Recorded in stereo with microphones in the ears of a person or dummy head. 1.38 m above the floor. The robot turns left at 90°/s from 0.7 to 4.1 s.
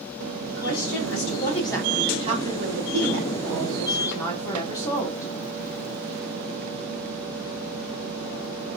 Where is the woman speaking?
110° left, 1.1 m; by 5.3 s 165° left, 1.1 m.